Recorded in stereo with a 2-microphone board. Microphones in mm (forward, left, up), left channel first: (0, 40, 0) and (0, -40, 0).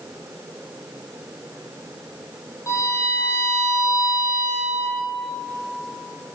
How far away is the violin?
About 3 m.